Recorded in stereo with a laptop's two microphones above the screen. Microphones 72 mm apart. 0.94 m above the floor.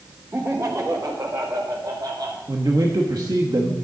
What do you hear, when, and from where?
0.3 s laughter: 35° right (ahead or behind), 1.3 m; by 2.4 s 70° right (ahead or behind), 2.5 m
2.5 s a man speaking: 60° right (ahead or behind), 1.2 m